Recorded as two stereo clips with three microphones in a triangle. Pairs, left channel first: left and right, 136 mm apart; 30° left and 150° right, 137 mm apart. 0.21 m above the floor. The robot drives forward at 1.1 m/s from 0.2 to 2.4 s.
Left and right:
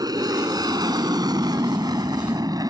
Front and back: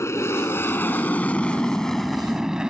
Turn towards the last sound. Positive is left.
turn(degrees=-75)